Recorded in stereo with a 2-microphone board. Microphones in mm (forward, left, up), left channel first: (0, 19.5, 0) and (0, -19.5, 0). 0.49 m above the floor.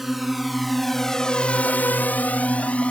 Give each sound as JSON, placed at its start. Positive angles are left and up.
{"t": 0.0, "sound": "a drone", "side_deg": -5}